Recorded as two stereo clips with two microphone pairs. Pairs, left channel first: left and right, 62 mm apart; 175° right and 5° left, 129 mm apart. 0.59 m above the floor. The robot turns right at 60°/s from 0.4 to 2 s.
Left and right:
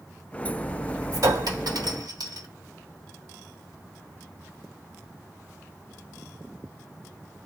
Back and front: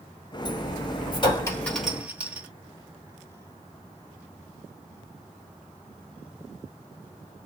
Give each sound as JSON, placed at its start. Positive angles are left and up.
{"t": 1.1, "sound": "a clink", "azimuth_deg": -130, "distance_m": 1.2}